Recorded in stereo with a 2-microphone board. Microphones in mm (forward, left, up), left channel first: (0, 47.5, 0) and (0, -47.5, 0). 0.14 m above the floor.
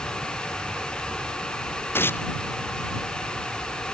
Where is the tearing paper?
20° left (ahead or behind).